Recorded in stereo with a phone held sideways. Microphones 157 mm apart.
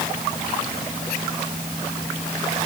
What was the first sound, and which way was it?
Only background noise.